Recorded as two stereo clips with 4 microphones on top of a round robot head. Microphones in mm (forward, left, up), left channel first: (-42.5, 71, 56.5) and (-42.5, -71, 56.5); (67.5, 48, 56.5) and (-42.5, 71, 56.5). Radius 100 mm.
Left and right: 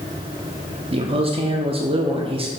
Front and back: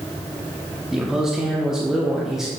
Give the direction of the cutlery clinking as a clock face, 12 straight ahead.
I don't hear cutlery clinking.